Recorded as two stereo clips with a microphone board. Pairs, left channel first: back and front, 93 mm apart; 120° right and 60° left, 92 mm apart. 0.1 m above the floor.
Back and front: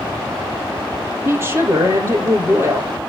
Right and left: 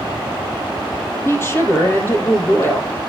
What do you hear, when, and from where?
1.2 s a woman speaking: 60° right, 3 m